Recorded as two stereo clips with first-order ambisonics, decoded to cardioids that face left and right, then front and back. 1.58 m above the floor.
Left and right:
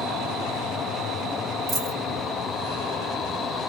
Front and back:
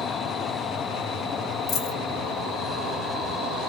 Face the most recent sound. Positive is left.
turn(degrees=-35)